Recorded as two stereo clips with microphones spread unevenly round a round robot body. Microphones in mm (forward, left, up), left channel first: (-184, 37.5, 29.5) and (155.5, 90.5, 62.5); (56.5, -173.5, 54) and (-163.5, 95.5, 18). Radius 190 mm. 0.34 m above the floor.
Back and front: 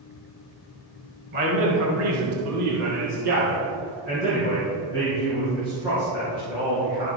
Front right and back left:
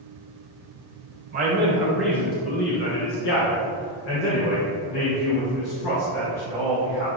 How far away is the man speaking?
About 2 m.